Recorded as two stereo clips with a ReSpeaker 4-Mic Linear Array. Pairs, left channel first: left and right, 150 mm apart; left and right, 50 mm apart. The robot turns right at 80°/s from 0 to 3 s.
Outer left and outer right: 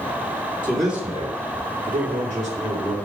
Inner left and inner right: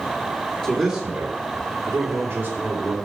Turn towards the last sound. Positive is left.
turn(degrees=15)